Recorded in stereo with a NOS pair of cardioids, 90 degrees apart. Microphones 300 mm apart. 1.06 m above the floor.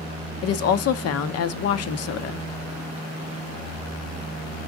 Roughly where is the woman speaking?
Ahead left.